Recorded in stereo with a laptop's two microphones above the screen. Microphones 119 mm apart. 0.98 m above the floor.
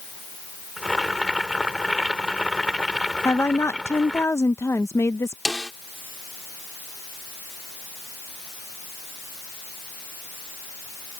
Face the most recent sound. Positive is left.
turn(degrees=0)  # may be behind; listen again after turning